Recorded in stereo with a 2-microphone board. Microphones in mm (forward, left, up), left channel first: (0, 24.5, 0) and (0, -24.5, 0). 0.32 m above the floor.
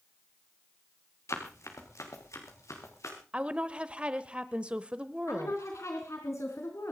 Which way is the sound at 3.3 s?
25° right (ahead or behind).